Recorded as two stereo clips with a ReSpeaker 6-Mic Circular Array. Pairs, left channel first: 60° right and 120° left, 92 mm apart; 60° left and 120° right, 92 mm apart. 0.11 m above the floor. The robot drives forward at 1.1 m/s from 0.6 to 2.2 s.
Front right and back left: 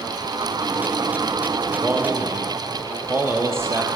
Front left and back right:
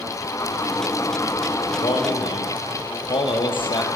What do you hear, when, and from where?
1.8 s a man speaking: 50° left, 3 m; by 3.9 s 60° left, 2.5 m